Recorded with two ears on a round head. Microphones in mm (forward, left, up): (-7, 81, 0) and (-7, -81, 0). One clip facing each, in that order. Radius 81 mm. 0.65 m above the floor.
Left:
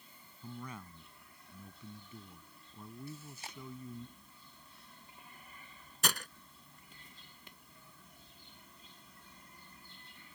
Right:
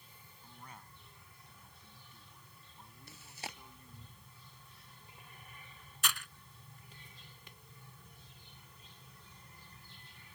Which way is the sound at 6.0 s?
35° left (ahead or behind).